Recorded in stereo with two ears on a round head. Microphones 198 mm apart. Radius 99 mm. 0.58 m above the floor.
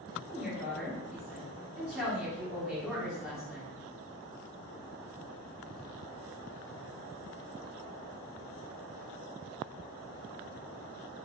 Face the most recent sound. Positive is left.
turn(degrees=-5)  # may be behind; listen again after turning